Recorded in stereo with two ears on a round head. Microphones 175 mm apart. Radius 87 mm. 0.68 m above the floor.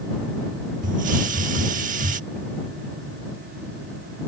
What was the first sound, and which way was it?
A hiss, 45° right (ahead or behind).